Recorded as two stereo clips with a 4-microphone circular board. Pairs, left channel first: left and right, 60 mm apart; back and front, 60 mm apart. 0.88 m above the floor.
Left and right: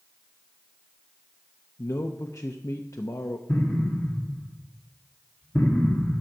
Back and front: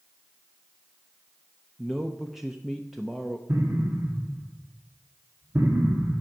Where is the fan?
No fan in this recording.